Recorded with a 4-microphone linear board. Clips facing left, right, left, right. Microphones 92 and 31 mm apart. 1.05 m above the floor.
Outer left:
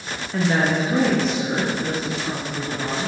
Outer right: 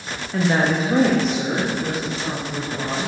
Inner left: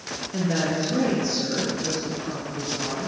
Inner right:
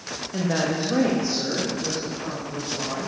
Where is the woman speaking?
Centre (ahead or behind), 0.9 m; by 3.1 s 65° right (ahead or behind), 4.5 m.